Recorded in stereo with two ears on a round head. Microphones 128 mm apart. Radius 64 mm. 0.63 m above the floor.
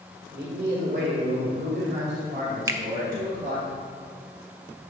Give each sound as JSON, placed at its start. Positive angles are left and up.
{"t": 0.3, "sound": "a man speaking", "side_deg": -65, "distance_m": 1.9}
{"t": 2.7, "sound": "a finger snap", "side_deg": -20, "distance_m": 0.5}